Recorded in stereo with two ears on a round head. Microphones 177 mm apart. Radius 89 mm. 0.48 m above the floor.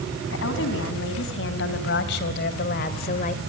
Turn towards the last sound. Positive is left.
turn(degrees=40)  # may be behind; listen again after turning